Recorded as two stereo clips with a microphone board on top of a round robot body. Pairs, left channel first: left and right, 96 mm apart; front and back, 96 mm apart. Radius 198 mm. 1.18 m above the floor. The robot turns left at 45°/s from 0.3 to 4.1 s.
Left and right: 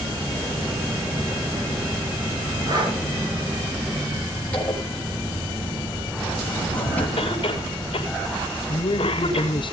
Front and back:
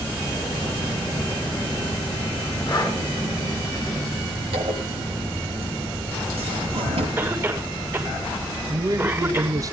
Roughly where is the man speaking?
Behind left.